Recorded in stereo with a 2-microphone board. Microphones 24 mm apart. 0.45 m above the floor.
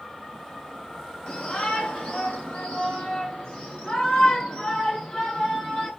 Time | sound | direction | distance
1.3 | a shout | 45° left (ahead or behind) | 1.4 m